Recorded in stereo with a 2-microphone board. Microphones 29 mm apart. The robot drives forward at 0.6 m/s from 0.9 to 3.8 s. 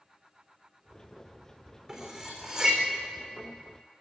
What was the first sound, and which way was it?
Cutlery clinking, 20° right (ahead or behind).